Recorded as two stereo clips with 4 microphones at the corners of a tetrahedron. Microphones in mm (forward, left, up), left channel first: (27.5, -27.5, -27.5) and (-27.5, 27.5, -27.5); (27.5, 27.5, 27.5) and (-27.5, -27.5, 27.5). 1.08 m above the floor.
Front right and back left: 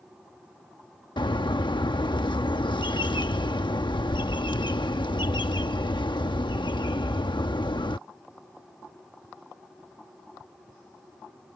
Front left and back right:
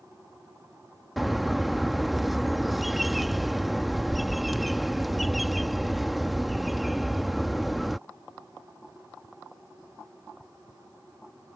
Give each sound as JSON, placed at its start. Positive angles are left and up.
{"t": 1.2, "sound": "a bird", "azimuth_deg": -45}